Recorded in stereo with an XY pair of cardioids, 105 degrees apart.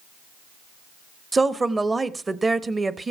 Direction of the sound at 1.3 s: 25° right.